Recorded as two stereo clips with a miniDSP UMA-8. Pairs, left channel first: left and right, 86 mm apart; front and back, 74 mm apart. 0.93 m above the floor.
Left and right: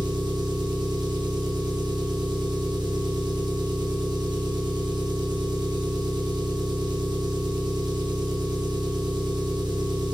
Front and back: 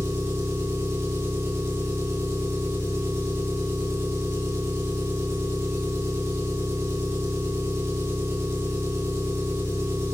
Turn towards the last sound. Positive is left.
turn(degrees=-125)